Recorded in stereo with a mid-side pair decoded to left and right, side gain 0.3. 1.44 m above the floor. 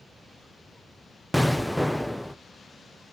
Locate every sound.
1.3 s an explosion: 5° right, 0.7 m